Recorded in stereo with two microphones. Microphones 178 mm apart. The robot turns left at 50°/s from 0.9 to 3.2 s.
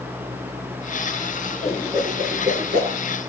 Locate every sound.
1.6 s a whoosh: centre (ahead or behind), 6.5 m; by 2.9 s 65° right (ahead or behind), 6.5 m